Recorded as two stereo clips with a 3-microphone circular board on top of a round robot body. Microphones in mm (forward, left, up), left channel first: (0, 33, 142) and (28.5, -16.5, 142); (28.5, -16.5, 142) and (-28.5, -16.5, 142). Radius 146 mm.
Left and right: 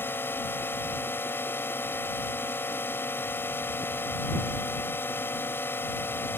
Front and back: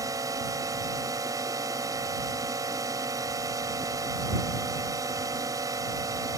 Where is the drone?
170° left.